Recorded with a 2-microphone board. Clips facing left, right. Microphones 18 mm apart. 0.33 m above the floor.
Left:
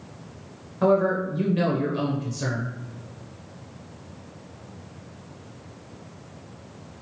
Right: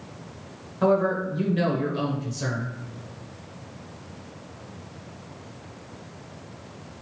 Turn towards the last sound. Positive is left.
turn(degrees=0)  # may be behind; listen again after turning